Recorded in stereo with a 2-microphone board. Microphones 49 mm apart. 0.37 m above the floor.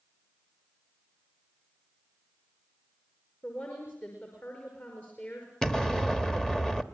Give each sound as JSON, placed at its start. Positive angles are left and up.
{"t": 3.4, "sound": "a woman speaking", "side_deg": 40, "distance_m": 5.5}
{"t": 5.6, "sound": "an explosion", "side_deg": 10, "distance_m": 1.1}